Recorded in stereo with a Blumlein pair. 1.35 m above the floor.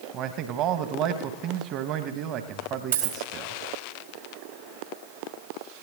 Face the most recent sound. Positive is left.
turn(degrees=-65)